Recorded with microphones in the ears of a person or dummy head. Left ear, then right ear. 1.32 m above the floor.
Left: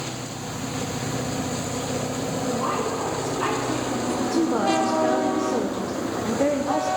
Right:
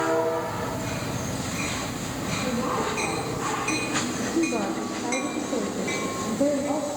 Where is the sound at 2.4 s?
45° left (ahead or behind), 6.5 m.